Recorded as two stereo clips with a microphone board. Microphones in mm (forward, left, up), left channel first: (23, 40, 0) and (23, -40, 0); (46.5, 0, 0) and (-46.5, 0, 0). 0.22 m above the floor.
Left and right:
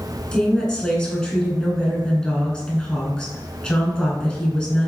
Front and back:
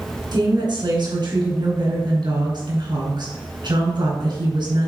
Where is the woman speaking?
170° left, 2.5 m.